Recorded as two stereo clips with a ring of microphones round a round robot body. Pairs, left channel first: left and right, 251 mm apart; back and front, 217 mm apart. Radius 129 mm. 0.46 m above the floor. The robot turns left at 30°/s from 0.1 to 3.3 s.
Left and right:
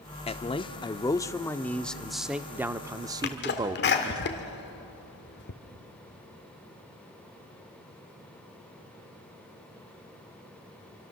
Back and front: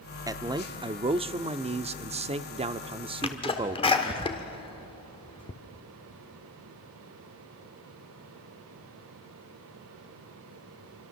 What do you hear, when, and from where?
0.3 s a man speaking: 55° left, 0.7 m; by 4.2 s 35° right, 0.7 m
3.2 s a sneeze: 125° left, 1.4 m; by 5.5 s 120° left, 1.4 m